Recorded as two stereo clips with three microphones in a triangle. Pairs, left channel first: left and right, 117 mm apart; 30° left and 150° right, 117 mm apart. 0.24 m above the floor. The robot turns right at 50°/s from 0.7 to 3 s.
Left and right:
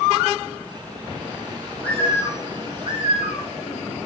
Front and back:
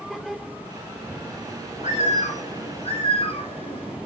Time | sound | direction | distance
1.8 | a bird | 5° left | 3.5 m